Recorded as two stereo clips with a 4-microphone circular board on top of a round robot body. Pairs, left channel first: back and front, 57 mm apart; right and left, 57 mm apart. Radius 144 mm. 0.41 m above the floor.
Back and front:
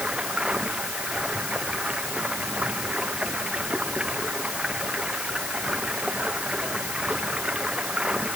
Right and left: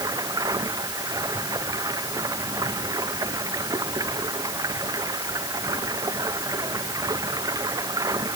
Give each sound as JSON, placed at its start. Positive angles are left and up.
{"t": 0.0, "sound": "running water", "azimuth_deg": 75}